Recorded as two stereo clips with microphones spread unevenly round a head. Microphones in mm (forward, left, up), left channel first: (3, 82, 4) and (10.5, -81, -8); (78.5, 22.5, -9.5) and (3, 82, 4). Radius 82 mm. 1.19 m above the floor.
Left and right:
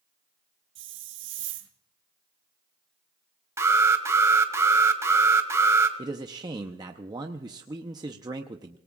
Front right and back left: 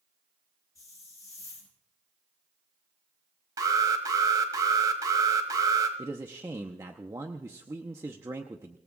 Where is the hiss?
110° right, 1.7 m.